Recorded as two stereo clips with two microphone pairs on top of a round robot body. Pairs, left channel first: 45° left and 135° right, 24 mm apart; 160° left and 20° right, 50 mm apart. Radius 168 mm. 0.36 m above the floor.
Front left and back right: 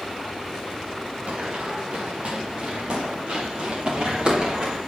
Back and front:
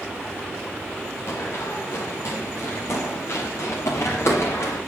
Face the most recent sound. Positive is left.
turn(degrees=180)